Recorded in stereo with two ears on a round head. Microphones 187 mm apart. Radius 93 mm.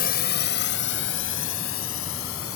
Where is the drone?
45° left (ahead or behind); by 2.6 s 75° left (ahead or behind).